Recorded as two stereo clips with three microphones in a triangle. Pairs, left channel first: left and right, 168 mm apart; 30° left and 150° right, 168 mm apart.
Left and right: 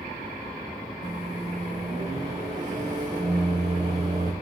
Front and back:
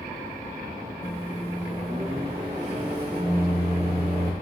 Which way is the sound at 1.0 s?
115° right.